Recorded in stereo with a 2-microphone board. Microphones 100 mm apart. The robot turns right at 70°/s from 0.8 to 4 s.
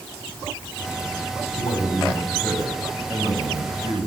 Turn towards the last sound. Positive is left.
turn(degrees=-90)